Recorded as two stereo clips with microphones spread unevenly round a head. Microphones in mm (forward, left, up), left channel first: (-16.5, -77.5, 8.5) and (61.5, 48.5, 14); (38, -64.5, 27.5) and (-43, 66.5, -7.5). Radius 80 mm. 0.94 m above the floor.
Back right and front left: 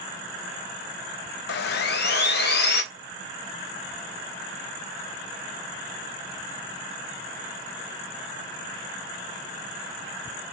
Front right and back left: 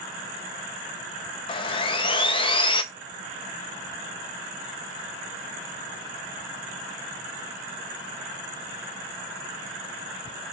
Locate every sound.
1.5 s sawing: 120° right, 0.5 m